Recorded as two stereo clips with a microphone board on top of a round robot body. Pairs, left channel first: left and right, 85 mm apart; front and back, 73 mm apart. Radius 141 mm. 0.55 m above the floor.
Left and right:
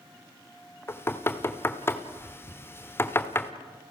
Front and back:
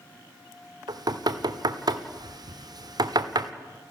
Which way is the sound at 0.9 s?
155° left.